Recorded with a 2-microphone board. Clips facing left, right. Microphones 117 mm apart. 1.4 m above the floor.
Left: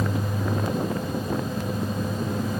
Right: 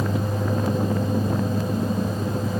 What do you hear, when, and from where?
Only background noise.